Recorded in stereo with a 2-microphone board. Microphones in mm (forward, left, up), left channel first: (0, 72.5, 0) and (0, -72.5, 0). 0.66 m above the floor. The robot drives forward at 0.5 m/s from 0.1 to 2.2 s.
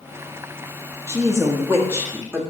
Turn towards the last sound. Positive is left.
turn(degrees=-15)  # may be behind; listen again after turning